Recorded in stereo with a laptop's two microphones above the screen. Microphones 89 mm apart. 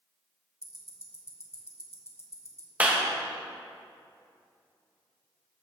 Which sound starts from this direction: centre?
A clap, at 2.8 s.